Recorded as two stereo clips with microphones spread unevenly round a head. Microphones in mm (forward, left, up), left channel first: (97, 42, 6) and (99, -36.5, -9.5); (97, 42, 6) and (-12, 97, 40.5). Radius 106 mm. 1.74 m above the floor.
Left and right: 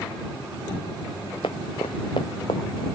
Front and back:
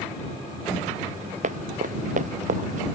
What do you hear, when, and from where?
1.4 s running footsteps: 145° left